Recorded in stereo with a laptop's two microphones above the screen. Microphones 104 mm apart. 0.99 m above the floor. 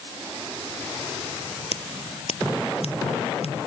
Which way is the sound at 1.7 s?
75° left (ahead or behind).